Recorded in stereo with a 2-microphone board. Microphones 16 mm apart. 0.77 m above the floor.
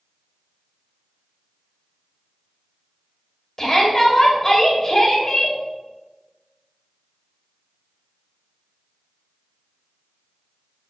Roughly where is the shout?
Left.